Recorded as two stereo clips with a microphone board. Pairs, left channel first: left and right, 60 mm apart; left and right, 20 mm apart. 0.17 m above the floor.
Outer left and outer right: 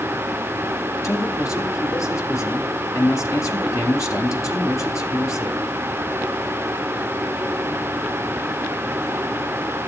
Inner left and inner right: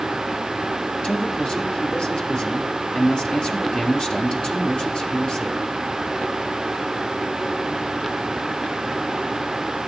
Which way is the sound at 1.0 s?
65° left (ahead or behind).